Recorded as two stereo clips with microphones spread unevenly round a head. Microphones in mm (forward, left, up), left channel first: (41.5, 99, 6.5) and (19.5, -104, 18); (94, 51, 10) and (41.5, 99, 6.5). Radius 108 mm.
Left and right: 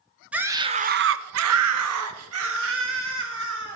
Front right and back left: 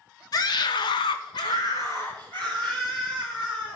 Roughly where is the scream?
Ahead.